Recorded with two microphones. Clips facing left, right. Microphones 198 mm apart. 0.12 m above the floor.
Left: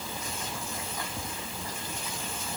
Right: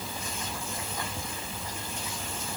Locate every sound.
Only background noise.